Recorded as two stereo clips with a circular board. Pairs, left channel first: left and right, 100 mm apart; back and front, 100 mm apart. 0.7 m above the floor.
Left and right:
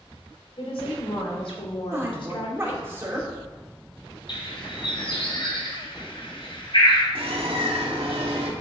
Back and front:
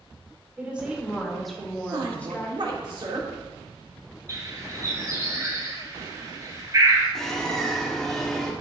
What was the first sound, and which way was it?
A woman speaking, 75° left.